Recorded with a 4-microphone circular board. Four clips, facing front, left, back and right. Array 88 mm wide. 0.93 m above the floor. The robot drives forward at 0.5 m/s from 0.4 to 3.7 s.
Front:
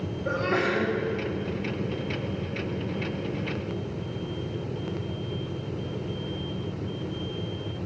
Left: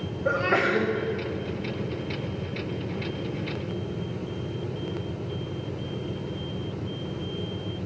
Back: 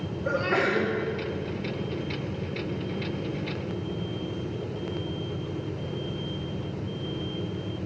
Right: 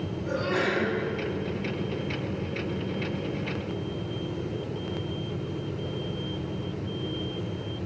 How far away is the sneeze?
About 1.6 m.